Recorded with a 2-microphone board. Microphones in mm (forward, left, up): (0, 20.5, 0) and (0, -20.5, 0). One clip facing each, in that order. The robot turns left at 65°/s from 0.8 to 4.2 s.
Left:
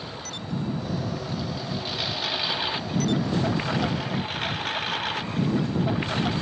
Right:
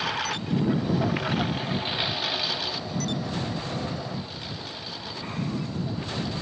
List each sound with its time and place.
0.0 s a lawn mower: 85° right; by 6.4 s 55° left